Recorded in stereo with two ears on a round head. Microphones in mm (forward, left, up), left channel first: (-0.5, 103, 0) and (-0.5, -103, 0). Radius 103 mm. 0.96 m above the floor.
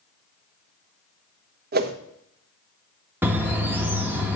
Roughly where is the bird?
Centre.